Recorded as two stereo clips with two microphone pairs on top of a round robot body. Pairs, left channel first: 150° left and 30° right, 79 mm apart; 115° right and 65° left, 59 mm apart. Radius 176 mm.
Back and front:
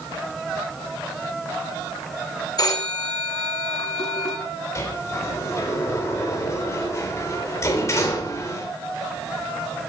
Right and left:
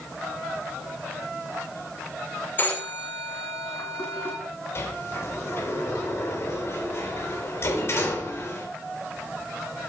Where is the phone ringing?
175° right, 6.5 m.